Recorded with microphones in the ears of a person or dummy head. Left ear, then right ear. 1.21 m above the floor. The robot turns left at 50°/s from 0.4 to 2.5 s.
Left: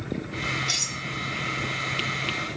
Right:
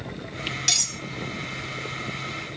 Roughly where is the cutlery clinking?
Right.